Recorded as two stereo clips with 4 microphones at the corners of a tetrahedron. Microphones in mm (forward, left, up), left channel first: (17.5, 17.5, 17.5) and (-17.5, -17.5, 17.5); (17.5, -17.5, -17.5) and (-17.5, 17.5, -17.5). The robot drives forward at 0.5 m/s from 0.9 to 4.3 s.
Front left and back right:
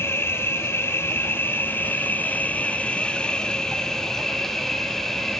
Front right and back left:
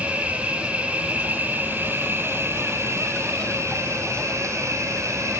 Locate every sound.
0.0 s an insect: 70° left, 1.7 m; by 5.4 s 125° left, 2 m